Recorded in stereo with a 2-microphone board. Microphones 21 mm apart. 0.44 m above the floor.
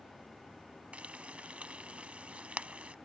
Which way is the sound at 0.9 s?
80° right.